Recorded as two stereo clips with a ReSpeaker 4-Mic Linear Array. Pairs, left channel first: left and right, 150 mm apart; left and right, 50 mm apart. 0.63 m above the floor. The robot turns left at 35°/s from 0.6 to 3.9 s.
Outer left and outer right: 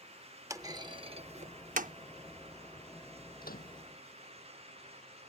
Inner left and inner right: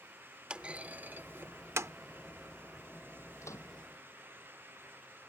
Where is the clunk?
20° right (ahead or behind); by 1.9 s 70° right (ahead or behind).